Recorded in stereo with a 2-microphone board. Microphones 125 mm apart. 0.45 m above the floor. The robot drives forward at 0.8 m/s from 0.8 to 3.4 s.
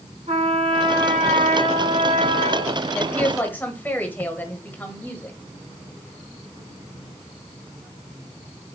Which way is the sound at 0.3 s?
55° right (ahead or behind).